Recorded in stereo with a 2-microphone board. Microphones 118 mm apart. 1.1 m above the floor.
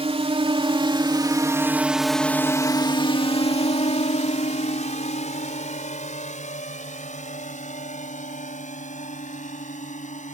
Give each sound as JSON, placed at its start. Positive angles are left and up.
{"t": 0.0, "sound": "a drone", "side_deg": -55}